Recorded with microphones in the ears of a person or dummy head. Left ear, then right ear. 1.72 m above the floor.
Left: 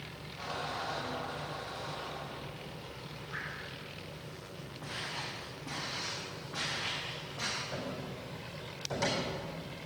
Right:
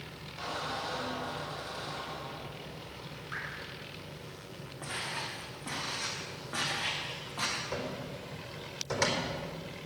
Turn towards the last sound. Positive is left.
turn(degrees=-70)  # may be behind; listen again after turning